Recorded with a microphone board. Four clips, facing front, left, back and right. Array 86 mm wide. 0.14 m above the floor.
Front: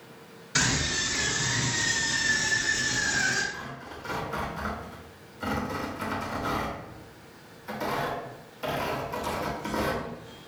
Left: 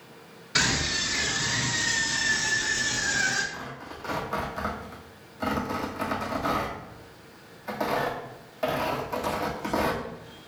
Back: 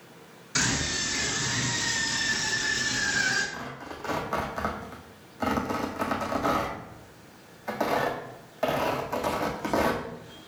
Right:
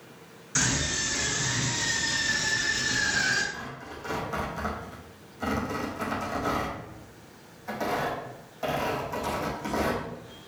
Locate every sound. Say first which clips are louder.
0.6 s a scream: left 2 dB, front 1 dB; 70° left, 1.4 m; by 3.4 s 120° right, 1.6 m
3.5 s tearing paper: even, back 2 dB; 170° left, 1.6 m